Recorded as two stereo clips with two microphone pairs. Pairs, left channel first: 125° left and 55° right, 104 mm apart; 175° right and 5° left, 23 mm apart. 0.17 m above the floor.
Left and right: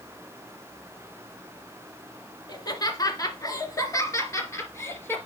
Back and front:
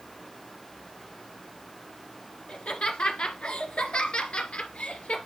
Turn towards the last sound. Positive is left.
turn(degrees=-170)